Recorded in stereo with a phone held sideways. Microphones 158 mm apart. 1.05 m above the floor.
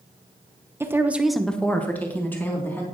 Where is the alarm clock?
No alarm clock in this recording.